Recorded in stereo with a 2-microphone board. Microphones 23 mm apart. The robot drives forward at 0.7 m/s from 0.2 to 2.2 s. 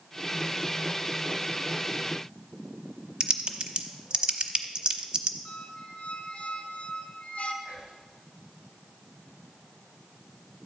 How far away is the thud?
No thud in this recording.